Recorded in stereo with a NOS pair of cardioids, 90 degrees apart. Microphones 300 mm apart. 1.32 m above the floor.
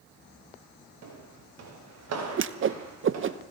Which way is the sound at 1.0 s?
60° right.